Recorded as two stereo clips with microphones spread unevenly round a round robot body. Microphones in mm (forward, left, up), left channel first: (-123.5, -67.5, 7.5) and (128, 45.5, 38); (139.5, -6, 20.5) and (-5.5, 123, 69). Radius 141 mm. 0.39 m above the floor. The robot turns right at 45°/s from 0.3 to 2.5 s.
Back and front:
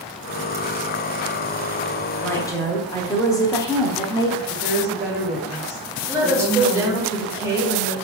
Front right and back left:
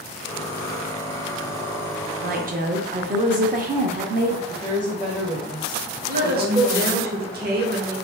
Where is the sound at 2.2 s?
140° left, 0.8 m; by 4.4 s 155° left, 0.8 m.